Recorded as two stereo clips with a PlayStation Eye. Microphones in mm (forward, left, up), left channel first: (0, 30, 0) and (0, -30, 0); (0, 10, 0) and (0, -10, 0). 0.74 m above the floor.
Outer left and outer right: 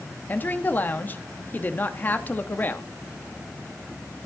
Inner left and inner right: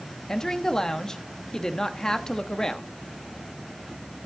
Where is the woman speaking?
30° left (ahead or behind), 1.0 m.